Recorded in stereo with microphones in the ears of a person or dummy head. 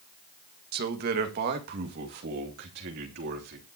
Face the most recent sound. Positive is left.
turn(degrees=-60)  # may be behind; listen again after turning